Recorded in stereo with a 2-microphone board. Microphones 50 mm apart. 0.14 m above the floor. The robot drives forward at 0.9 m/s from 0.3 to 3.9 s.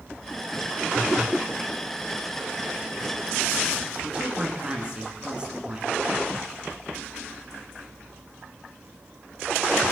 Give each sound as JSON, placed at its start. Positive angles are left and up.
{"t": 4.0, "sound": "a woman speaking", "side_deg": -20, "distance_m": 1.3}